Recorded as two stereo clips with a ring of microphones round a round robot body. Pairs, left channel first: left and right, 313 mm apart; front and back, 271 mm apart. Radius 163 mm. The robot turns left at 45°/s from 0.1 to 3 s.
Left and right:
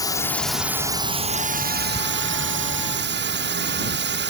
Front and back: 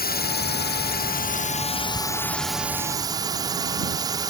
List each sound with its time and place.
0.0 s a drone: 20° left; by 4.3 s 110° right